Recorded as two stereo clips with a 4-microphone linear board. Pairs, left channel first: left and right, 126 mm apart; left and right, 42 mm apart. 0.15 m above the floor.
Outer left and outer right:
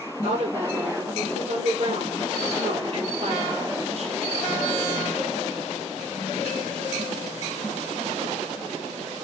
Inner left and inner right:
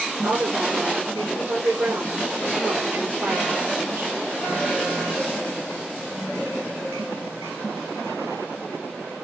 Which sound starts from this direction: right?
A woman speaking, at 0.2 s.